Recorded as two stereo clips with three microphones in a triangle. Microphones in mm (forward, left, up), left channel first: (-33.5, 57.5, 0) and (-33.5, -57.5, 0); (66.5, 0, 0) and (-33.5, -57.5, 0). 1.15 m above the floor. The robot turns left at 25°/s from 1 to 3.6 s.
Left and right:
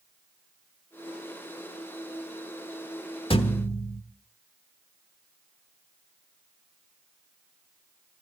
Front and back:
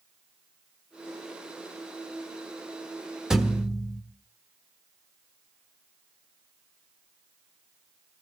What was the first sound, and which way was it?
A thud, 125° left.